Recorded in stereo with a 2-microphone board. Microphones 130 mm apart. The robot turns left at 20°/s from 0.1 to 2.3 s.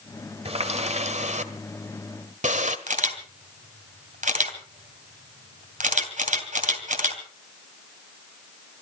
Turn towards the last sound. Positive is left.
turn(degrees=-75)  # may be behind; listen again after turning